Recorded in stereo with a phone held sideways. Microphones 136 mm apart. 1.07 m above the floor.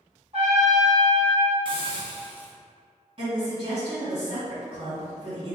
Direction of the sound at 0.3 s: 55° right (ahead or behind).